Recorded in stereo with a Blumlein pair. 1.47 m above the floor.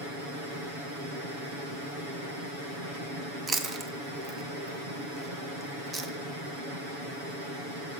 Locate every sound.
3.5 s chewing: 20° right, 0.6 m